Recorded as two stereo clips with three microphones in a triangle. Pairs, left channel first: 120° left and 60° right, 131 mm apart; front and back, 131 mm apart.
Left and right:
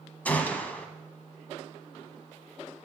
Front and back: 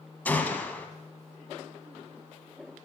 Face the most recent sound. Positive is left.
turn(degrees=55)